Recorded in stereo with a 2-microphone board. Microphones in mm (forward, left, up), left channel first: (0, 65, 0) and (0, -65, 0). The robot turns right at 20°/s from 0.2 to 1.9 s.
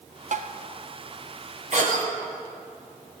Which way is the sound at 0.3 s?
65° right (ahead or behind).